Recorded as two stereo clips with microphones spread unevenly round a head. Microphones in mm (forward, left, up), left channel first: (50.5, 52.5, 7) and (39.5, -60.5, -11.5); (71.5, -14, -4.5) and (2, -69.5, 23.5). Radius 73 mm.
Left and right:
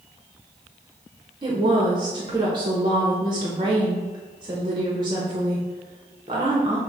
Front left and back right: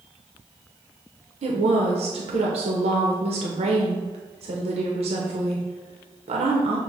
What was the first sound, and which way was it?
A woman speaking, 140° right.